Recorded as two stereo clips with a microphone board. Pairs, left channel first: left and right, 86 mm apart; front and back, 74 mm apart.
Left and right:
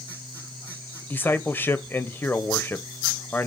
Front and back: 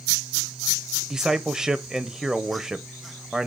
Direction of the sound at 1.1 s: 110° left.